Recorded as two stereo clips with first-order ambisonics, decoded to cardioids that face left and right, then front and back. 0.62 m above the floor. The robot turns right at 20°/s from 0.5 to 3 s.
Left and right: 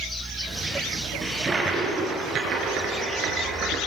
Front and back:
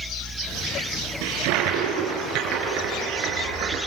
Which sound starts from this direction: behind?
A toilet flushing, at 1.2 s.